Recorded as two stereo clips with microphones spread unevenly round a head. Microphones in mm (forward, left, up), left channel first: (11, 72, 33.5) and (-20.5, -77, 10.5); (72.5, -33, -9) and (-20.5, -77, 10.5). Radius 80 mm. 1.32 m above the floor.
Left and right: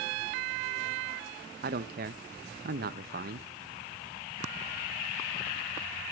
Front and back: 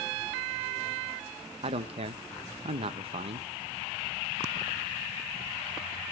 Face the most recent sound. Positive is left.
turn(degrees=-135)